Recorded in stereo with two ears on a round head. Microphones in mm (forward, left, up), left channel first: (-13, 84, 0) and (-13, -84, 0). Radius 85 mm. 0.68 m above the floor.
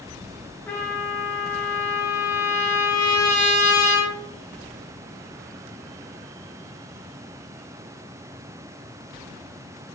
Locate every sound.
0.7 s a trumpet: 10° left (ahead or behind), 0.6 m